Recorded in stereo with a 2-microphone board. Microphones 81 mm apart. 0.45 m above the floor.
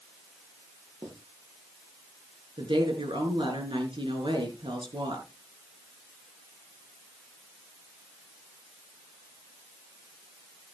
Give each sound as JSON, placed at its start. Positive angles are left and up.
{"t": 1.0, "sound": "writing", "side_deg": -40, "distance_m": 8.0}
{"t": 2.6, "sound": "a woman speaking", "side_deg": -75, "distance_m": 5.0}